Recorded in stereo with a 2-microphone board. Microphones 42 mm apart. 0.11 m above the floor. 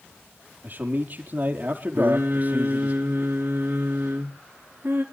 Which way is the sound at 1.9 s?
50° right (ahead or behind).